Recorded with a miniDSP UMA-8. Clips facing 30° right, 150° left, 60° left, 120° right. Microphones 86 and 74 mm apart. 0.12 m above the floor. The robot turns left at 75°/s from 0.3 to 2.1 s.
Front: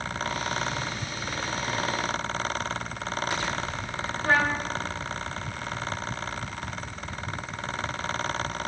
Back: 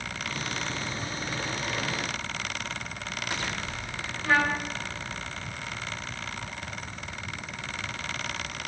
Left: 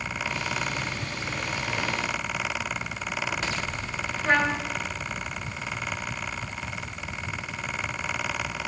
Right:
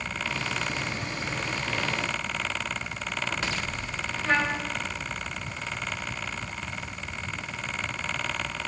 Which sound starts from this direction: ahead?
A trumpet, at 4.2 s.